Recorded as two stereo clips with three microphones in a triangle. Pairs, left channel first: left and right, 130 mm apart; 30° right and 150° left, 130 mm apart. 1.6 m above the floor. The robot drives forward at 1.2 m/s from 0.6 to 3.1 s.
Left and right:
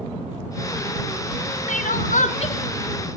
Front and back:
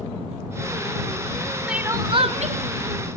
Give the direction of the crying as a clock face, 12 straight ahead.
10 o'clock.